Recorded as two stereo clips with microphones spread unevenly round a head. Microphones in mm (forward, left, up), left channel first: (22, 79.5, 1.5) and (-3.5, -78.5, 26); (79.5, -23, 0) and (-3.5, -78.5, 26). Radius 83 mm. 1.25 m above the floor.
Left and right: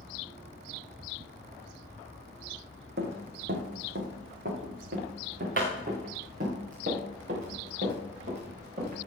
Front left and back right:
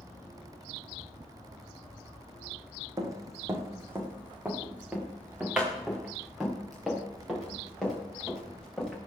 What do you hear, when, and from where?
3.0 s running footsteps: 110° right, 3 m; by 9.0 s 55° right, 8.5 m